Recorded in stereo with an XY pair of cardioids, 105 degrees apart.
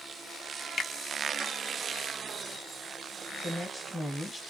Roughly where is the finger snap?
Ahead left.